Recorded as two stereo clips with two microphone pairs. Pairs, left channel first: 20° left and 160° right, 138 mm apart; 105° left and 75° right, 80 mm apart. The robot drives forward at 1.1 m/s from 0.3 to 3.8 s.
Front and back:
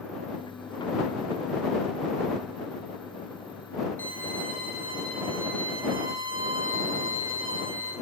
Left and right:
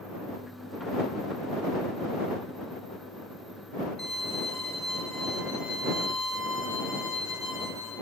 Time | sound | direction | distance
4.0 | a violin | 175° right | 6 m